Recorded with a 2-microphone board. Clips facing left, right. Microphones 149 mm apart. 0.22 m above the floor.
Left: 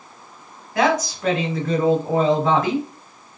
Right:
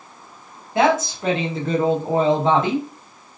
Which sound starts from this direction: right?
A woman speaking, at 0.8 s.